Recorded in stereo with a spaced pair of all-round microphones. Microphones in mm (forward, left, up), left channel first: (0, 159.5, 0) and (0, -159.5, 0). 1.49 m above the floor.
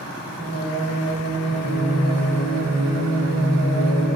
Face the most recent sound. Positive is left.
turn(degrees=55)  # may be behind; listen again after turning